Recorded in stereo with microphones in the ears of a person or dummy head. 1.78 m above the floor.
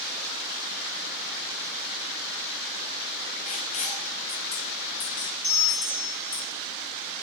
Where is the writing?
45° left (ahead or behind), 0.8 m.